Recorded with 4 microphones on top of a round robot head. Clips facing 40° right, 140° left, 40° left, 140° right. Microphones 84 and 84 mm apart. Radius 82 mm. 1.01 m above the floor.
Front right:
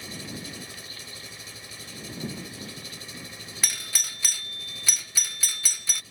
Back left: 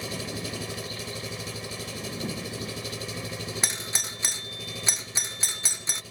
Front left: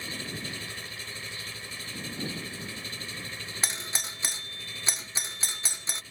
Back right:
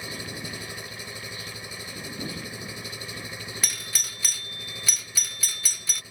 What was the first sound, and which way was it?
An engine running, 145° left.